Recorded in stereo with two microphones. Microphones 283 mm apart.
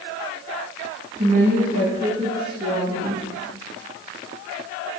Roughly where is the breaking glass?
I don't hear breaking glass.